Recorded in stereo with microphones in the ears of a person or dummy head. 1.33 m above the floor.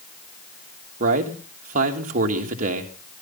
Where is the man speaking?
45° right (ahead or behind), 2.5 m.